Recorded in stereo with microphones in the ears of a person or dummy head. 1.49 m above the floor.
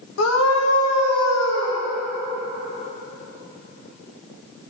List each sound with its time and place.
0.2 s a scream: 85° left, 1.9 m; by 1.8 s 80° left, 2.5 m